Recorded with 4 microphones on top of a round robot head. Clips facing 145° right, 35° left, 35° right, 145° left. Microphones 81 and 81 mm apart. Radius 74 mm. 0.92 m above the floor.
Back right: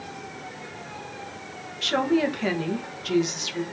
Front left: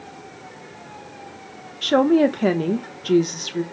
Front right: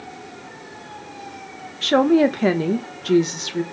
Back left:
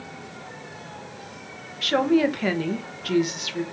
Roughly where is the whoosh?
I don't hear a whoosh.